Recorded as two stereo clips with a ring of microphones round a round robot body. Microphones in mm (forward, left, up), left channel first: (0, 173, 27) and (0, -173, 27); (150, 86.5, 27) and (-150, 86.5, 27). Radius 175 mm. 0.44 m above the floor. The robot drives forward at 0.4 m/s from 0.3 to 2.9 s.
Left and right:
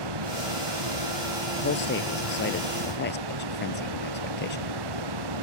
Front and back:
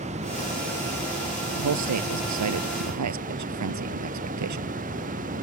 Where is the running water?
110° right.